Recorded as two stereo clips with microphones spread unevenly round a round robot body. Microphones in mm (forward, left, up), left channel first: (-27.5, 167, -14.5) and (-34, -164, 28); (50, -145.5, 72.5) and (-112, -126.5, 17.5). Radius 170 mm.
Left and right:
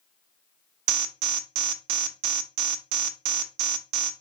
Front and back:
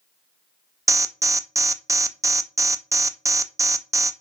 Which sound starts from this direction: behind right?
An alarm, at 0.9 s.